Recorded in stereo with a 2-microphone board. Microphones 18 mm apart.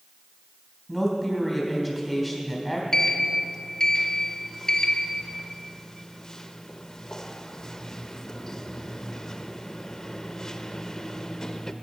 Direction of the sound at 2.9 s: 30° left (ahead or behind).